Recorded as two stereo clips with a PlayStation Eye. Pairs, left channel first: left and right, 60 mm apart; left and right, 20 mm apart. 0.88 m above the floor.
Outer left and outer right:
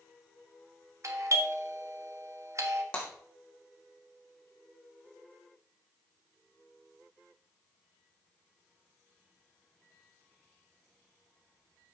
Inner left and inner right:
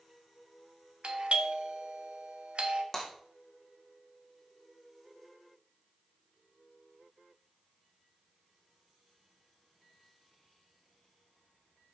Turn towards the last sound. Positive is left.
turn(degrees=20)  # may be behind; listen again after turning